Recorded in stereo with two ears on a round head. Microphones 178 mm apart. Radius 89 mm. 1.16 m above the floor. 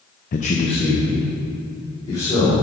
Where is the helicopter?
I don't hear a helicopter.